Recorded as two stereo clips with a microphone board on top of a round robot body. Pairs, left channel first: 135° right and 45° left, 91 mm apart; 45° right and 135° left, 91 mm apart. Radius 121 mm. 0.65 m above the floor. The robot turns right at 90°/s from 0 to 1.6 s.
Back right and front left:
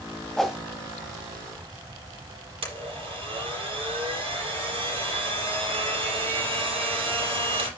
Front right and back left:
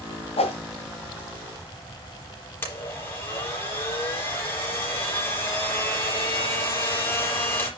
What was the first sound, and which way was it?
A whoosh, 50° right.